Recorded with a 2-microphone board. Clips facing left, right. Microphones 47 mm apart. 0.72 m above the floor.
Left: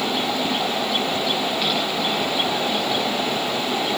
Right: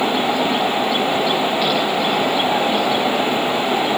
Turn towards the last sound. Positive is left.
No sound to turn to.